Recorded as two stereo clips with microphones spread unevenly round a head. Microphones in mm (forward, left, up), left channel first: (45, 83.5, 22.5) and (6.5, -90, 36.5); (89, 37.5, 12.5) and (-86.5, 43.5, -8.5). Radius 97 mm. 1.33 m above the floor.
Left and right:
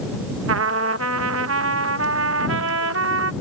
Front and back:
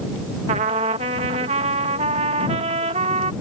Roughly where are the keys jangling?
No keys jangling in this recording.